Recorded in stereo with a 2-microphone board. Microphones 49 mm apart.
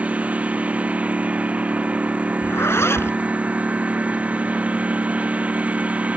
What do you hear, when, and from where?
0.0 s a lawn mower: 30° right (ahead or behind)
2.4 s a zipper: 60° left (ahead or behind)